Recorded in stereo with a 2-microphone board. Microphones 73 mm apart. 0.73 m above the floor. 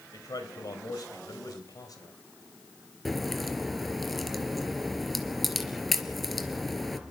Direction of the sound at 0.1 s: 60° left (ahead or behind).